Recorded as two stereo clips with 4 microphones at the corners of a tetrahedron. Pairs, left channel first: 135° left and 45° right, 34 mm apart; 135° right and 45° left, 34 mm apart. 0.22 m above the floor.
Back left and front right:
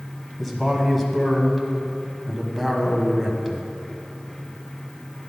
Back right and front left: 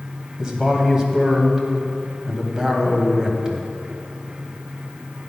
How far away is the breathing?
No breathing in this recording.